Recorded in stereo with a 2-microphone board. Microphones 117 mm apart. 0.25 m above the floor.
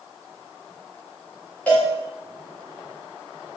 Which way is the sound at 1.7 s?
10° left (ahead or behind).